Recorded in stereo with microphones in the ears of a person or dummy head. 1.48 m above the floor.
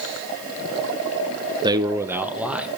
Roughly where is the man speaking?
Right.